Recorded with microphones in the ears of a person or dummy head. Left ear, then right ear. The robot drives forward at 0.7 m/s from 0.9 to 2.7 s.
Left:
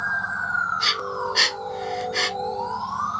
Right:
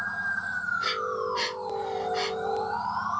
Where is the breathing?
45° left (ahead or behind), 1.2 m; by 2.3 s 65° left (ahead or behind), 0.9 m.